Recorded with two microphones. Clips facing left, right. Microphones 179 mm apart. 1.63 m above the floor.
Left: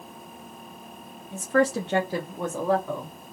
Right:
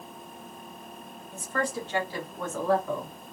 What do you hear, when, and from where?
1.3 s a woman speaking: 80° left, 1.0 m; by 3.1 s 5° right (ahead or behind), 1.3 m